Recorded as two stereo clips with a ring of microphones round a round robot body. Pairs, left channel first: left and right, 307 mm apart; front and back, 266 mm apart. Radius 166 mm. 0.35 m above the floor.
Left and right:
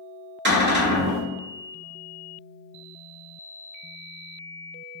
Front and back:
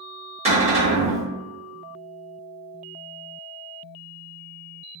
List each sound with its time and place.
0.5 s a cupboard door: 125° right, 1.5 m